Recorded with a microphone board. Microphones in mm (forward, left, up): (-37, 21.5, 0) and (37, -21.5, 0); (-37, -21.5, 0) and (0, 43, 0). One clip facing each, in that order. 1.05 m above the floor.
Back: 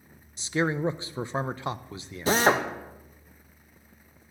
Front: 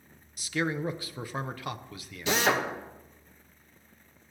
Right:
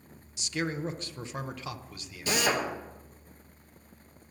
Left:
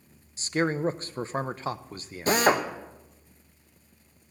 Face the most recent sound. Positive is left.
turn(degrees=105)